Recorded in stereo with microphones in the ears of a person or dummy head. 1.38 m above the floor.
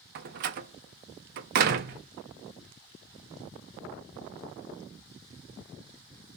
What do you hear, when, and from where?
0.1 s a door slam: 55° right (ahead or behind), 0.6 m